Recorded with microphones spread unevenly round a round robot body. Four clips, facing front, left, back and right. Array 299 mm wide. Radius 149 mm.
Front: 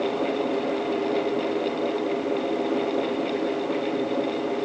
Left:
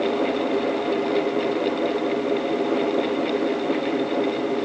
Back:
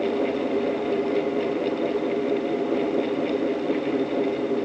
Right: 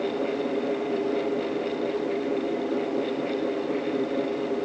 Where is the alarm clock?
No alarm clock in this recording.